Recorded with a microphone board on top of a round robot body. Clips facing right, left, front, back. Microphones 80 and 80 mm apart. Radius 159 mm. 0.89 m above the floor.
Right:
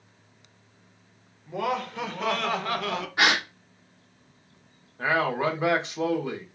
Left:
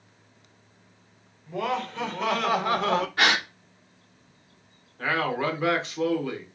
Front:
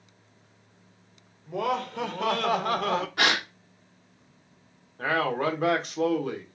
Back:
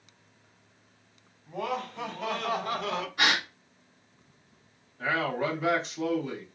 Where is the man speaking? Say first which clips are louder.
Right 2 dB, front 3 dB; 20° right, 1.7 m.